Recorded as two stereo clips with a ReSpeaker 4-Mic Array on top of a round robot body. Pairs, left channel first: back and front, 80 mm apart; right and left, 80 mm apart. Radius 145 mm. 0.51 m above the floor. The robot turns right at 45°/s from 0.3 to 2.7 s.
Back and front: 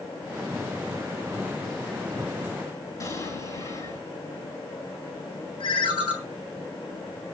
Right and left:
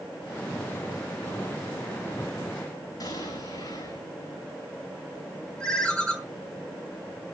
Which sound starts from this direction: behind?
A ringtone, at 5.6 s.